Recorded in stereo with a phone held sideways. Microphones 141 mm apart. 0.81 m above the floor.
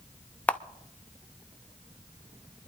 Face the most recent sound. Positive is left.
turn(degrees=10)  # may be behind; listen again after turning